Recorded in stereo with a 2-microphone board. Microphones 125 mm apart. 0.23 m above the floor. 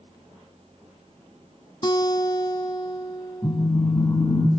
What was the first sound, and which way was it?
A guitar, 35° left (ahead or behind).